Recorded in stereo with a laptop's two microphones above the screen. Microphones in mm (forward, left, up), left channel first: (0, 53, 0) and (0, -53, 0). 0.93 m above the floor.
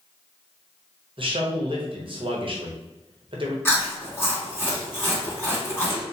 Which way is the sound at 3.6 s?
20° left (ahead or behind).